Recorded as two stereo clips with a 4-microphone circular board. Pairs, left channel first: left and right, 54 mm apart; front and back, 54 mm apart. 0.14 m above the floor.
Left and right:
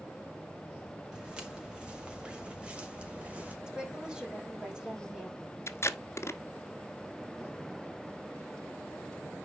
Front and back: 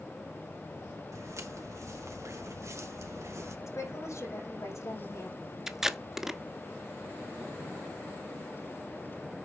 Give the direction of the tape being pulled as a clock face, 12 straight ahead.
9 o'clock.